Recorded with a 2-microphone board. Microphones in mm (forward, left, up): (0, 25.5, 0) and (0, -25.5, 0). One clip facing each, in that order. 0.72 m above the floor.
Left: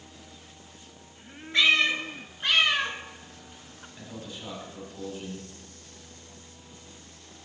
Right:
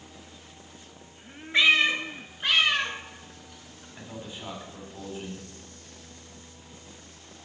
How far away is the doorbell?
No doorbell in this recording.